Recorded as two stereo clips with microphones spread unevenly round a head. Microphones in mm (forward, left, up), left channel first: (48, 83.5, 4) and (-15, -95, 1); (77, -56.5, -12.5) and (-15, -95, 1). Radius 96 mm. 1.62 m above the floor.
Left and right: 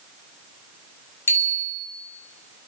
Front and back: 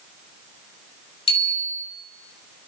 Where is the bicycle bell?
10° right, 8.5 m.